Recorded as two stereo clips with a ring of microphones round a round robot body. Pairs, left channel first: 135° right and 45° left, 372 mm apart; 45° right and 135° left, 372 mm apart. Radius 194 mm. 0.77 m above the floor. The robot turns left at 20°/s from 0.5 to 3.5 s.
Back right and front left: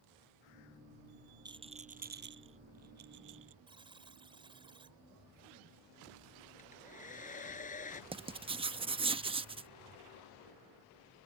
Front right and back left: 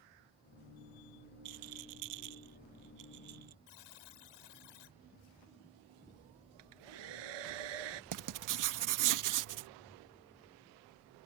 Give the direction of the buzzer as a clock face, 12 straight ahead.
1 o'clock.